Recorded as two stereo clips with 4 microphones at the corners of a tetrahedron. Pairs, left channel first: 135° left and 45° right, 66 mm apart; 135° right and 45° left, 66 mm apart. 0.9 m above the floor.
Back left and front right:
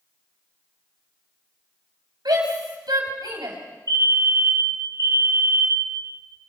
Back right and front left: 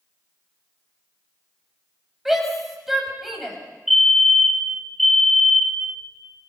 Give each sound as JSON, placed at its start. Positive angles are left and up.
{"t": 2.2, "sound": "a shout", "azimuth_deg": -40, "distance_m": 6.0}
{"t": 3.9, "sound": "a fire alarm", "azimuth_deg": -45, "distance_m": 3.0}